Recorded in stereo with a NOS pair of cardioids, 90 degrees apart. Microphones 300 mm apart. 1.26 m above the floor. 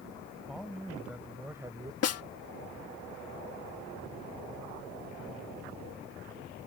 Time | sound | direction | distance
0.5 | a man speaking | straight ahead | ?
2.0 | a snare drum | 55° left | ?